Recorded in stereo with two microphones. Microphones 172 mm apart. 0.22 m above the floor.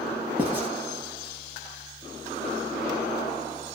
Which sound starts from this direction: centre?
Writing, at 0.4 s.